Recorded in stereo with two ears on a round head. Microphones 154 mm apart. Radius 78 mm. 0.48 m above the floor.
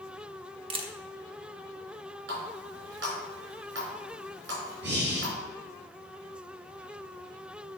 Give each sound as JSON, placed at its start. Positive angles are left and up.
{"t": 0.7, "sound": "a camera shutter", "side_deg": -30, "distance_m": 0.8}
{"t": 2.3, "sound": "a running tap", "side_deg": -75, "distance_m": 4.0}
{"t": 4.8, "sound": "breathing", "side_deg": -80, "distance_m": 3.0}